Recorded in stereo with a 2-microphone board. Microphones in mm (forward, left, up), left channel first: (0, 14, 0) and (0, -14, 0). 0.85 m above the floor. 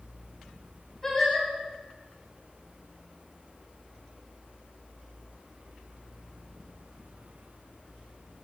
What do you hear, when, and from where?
1.0 s singing: 15° left (ahead or behind), 5.5 m